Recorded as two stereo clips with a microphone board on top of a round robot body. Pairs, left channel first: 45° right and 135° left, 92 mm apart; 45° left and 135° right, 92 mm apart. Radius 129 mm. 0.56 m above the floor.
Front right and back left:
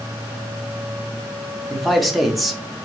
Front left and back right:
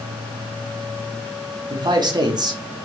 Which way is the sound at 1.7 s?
135° right.